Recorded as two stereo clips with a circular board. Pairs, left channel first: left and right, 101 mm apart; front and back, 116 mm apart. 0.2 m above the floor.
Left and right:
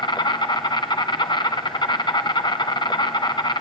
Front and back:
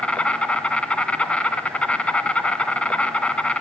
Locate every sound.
0.0 s an insect: 75° left, 1.6 m